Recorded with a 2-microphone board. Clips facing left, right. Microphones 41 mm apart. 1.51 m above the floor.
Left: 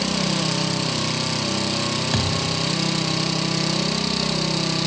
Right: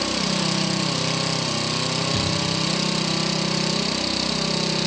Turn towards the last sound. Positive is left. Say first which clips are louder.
# left 1 dB
turn(degrees=60)  # may be behind; listen again after turning